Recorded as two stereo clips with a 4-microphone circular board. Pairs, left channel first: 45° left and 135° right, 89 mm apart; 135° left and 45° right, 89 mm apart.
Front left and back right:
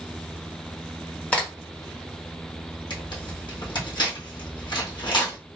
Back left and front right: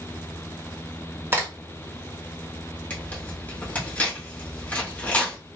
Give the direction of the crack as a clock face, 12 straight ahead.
12 o'clock.